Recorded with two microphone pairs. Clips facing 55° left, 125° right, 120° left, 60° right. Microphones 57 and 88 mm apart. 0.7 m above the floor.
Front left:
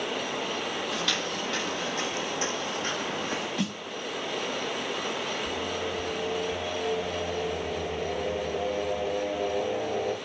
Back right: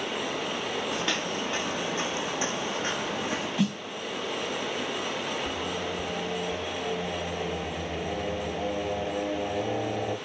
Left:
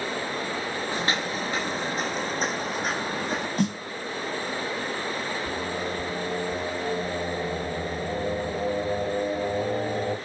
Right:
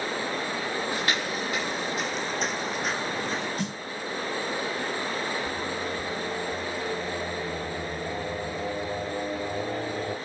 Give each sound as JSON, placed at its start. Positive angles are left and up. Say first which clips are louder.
{"t": 0.9, "sound": "footsteps", "louder": "back right 1 dB, left 1 dB", "azimuth_deg": 175, "distance_m": 1.3}
{"t": 3.6, "sound": "a snare drum", "louder": "back right 4 dB, left 6 dB", "azimuth_deg": 145, "distance_m": 1.2}
{"t": 5.5, "sound": "singing", "louder": "even, left 1 dB", "azimuth_deg": 165, "distance_m": 5.0}